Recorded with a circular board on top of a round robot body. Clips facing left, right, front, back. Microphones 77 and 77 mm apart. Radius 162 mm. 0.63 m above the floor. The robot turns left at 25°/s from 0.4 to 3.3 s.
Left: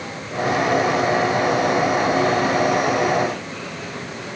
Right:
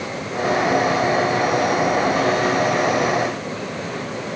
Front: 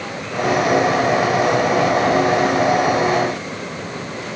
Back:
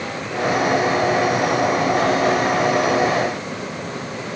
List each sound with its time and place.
Only background noise.